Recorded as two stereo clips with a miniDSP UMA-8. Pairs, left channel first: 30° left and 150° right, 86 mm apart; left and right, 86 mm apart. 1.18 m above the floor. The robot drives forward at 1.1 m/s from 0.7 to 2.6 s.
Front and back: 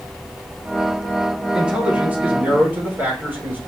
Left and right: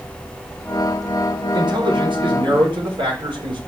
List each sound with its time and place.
1.5 s a man speaking: 70° right, 5 m; by 3.6 s 85° right, 5 m